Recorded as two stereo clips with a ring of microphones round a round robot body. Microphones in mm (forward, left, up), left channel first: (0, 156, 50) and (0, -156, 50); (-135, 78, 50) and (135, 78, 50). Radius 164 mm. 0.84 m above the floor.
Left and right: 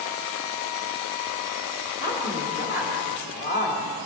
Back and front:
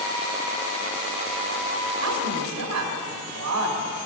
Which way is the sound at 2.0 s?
10° right.